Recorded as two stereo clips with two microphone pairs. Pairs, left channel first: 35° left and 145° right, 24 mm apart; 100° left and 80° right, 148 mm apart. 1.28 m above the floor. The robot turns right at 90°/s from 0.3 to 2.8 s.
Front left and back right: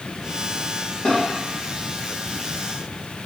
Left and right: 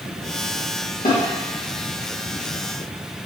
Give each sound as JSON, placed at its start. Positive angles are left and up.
{"t": 1.1, "sound": "a snare drum", "azimuth_deg": 85, "distance_m": 1.3}